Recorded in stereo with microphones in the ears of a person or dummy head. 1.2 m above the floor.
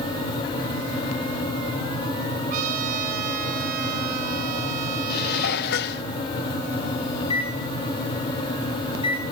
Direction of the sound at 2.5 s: 45° right (ahead or behind).